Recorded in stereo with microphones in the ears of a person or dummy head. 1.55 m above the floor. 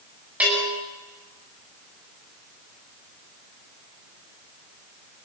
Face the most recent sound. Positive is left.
turn(degrees=-5)  # may be behind; listen again after turning